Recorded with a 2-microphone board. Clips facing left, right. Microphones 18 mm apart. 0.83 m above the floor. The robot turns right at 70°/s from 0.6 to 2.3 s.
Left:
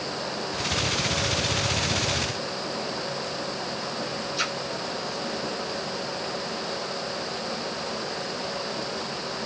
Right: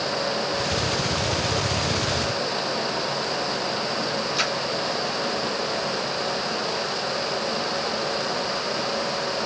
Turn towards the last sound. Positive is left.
turn(degrees=-35)  # may be behind; listen again after turning